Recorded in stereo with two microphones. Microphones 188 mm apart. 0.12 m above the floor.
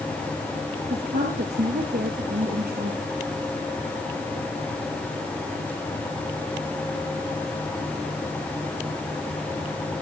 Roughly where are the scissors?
No scissors in this recording.